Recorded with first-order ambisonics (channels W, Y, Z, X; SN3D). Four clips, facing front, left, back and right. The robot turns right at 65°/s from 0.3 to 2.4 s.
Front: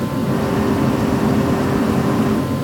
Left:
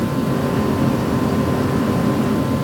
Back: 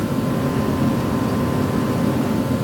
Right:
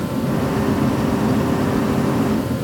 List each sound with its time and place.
Only background noise.